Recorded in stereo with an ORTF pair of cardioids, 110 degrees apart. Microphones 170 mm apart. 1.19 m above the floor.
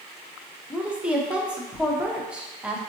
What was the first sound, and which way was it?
A woman speaking, 5° right.